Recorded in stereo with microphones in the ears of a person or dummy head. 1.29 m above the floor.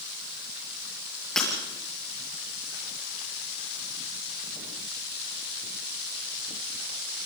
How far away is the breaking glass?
About 6 m.